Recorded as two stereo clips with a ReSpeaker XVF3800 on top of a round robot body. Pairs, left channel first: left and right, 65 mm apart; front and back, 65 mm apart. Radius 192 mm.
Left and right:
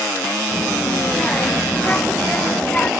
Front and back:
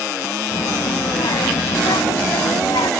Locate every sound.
0.5 s a child speaking: 15° left